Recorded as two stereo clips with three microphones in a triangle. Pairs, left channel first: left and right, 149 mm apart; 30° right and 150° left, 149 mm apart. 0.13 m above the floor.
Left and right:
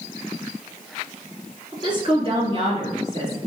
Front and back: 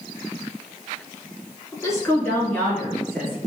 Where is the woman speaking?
70° right, 1.3 m; by 3.4 s 115° right, 2 m.